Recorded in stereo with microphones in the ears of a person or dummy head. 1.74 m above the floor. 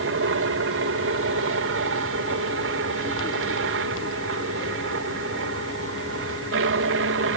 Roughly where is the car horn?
I don't hear a car horn.